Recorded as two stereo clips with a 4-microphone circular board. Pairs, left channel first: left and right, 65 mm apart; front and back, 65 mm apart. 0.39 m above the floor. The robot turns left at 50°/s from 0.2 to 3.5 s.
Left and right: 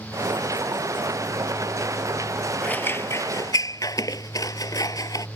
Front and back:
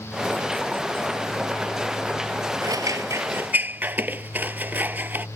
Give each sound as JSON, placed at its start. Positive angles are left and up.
{"t": 2.6, "sound": "scissors", "azimuth_deg": 160}